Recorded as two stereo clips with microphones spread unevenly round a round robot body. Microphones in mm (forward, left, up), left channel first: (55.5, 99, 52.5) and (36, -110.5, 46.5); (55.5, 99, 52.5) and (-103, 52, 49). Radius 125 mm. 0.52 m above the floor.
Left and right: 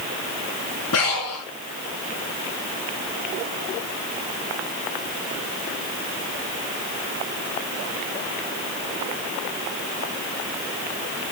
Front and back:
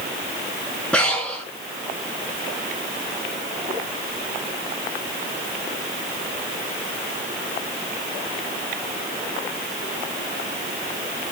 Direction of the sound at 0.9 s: 100° left.